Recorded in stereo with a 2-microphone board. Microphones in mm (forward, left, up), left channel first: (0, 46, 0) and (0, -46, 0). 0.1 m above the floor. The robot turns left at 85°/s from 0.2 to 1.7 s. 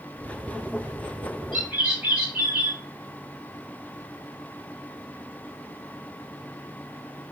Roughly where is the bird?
Centre.